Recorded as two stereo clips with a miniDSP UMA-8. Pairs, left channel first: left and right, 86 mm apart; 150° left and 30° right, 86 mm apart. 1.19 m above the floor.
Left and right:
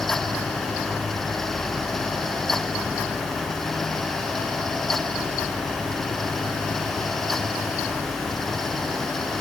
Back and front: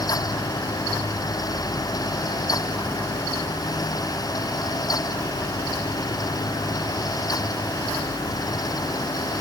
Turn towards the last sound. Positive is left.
No sound to turn to.